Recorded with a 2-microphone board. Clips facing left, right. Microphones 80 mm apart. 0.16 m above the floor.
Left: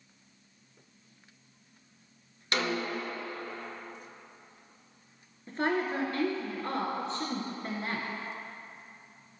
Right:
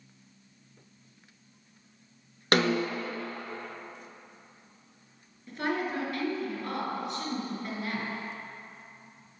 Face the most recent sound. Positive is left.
turn(degrees=30)  # may be behind; listen again after turning